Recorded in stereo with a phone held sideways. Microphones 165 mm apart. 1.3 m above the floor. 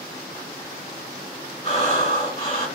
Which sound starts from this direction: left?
Breathing, at 1.6 s.